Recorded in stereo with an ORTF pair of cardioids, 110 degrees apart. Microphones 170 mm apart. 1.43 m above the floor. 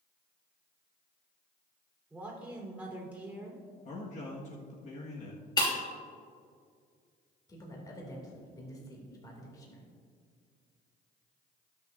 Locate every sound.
2.1 s a man speaking: 10° right, 3.5 m
3.9 s a man speaking: 45° left, 1.6 m
5.6 s breaking glass: 25° left, 3 m
7.5 s a man speaking: 20° left, 2.5 m